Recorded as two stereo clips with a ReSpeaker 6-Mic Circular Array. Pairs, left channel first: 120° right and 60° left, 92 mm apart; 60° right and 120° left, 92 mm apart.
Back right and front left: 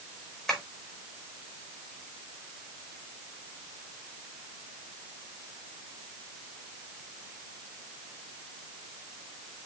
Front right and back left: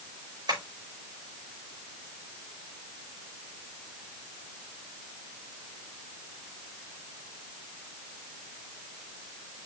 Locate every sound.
0.5 s tapping: 155° left, 5 m